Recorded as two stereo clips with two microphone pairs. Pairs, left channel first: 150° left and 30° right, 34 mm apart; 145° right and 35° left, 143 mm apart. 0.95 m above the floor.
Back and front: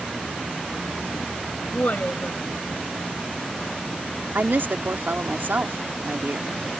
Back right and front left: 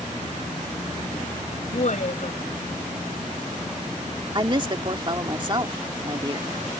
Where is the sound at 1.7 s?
175° right.